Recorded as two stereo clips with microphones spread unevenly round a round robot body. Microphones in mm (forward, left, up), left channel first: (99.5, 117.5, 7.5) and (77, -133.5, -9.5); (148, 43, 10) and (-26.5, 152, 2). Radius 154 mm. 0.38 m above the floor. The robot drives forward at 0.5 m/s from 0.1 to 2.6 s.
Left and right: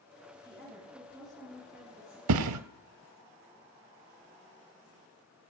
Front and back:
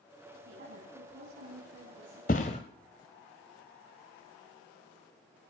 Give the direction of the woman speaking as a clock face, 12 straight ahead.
6 o'clock.